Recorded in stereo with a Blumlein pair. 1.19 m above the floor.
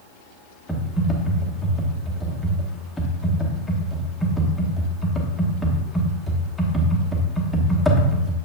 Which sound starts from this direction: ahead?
Typing on a keyboard, at 0.7 s.